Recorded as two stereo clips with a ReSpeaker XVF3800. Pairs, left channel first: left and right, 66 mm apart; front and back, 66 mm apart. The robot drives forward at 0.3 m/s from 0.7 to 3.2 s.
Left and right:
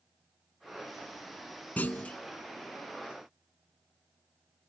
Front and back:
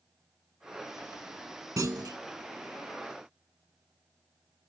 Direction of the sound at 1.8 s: 155° left.